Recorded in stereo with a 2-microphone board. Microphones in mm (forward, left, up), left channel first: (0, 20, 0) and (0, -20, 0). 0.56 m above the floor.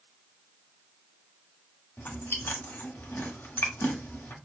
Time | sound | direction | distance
2.0 | chewing | 60° left (ahead or behind) | 1.1 m